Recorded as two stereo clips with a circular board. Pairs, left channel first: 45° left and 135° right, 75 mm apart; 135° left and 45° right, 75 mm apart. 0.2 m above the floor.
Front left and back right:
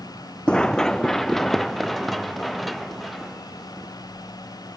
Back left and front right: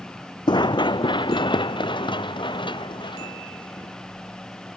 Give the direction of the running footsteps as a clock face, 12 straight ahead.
8 o'clock.